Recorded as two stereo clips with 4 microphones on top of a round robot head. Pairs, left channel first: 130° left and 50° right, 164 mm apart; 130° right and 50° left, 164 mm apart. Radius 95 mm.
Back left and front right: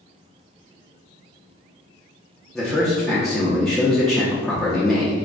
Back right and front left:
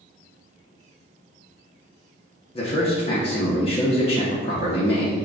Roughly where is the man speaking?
Behind right.